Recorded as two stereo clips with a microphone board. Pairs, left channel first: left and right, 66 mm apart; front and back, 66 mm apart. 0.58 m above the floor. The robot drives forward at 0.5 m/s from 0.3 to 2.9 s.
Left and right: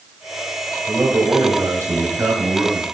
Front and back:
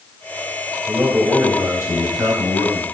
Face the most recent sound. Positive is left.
turn(degrees=-140)